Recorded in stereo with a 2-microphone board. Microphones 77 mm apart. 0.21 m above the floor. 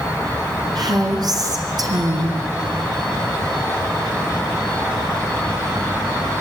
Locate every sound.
0.8 s a woman speaking: 60° right (ahead or behind), 2.5 m